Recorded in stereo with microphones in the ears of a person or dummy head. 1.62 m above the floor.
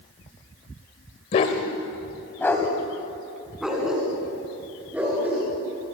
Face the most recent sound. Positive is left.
turn(degrees=-10)  # may be behind; listen again after turning